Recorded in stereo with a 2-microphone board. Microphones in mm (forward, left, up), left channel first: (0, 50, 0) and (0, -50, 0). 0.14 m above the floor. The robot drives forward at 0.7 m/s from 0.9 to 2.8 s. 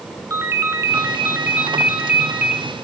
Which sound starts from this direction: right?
A ringtone, at 0.3 s.